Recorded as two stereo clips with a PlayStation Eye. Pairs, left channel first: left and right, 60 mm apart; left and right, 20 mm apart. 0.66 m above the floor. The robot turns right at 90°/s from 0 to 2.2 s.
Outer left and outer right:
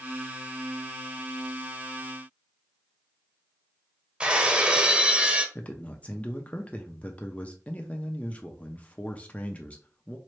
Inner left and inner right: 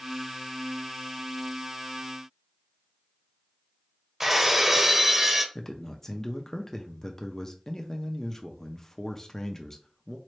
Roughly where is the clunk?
I don't hear a clunk.